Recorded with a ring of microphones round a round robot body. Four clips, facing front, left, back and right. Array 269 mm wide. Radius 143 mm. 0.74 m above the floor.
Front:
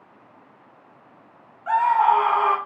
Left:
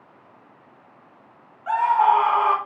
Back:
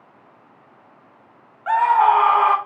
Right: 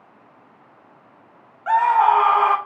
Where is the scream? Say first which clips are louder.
Right 2 dB, back 3 dB; 140° right, 0.6 m.